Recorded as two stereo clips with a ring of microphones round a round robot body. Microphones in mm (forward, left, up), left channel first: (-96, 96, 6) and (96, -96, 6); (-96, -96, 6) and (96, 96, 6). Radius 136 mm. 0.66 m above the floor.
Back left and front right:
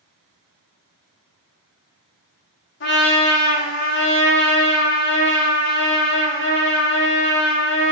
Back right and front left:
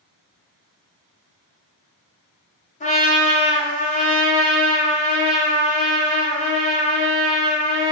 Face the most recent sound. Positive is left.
turn(degrees=170)